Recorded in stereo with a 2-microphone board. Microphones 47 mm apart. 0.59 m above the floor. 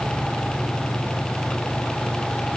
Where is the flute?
No flute in this recording.